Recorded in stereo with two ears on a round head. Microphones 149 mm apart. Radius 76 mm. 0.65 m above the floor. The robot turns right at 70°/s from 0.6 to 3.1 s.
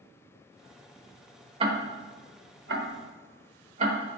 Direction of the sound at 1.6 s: 35° right (ahead or behind).